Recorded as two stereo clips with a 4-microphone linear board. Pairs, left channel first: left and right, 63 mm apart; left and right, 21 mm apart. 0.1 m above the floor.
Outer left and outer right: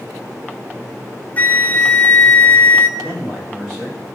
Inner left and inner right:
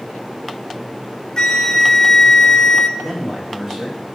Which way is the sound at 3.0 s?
10° right (ahead or behind).